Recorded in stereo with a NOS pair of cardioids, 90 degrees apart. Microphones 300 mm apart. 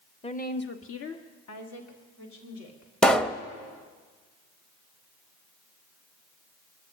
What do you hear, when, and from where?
0.2 s a woman speaking: 20° left, 1.2 m; by 2.9 s 75° left, 4 m
3.0 s a pop: straight ahead, 0.8 m